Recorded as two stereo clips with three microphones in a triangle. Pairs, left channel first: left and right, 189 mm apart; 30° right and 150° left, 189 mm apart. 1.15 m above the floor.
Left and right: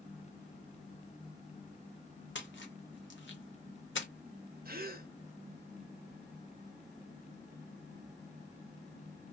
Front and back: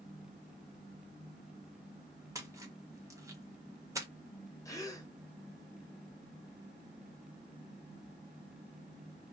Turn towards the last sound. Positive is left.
turn(degrees=-100)